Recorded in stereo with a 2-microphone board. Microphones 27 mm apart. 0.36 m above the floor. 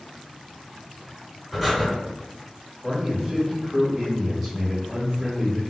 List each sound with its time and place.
1.5 s breathing: centre (ahead or behind), 1.0 m
2.8 s a man speaking: 5° right (ahead or behind), 1.6 m